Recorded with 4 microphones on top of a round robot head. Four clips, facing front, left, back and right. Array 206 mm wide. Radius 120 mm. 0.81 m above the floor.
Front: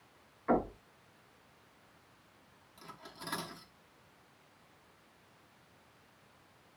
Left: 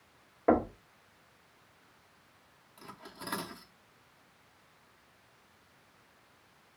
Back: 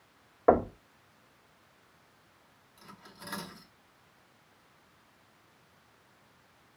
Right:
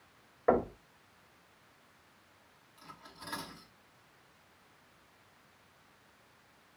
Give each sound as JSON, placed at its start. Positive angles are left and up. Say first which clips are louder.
{"t": 0.5, "sound": "knocking", "louder": "left 2 dB, back 7 dB", "azimuth_deg": 165, "distance_m": 1.6}
{"t": 2.8, "sound": "cutlery clinking", "louder": "left 4 dB, front 1 dB", "azimuth_deg": 80, "distance_m": 1.5}